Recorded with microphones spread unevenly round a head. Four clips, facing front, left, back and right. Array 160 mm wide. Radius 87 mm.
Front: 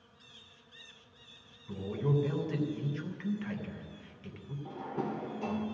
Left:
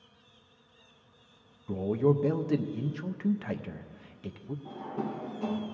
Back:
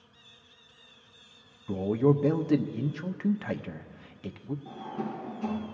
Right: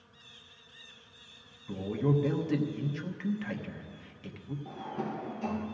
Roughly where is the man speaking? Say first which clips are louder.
Left 4 dB, back 9 dB; behind left.